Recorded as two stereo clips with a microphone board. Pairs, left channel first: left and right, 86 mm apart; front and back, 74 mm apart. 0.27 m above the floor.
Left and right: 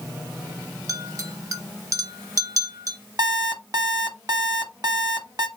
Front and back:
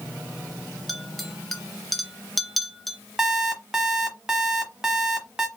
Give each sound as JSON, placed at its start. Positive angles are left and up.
{"t": 0.9, "sound": "a clink", "azimuth_deg": -90, "distance_m": 0.7}
{"t": 3.2, "sound": "an alarm clock", "azimuth_deg": -100, "distance_m": 1.0}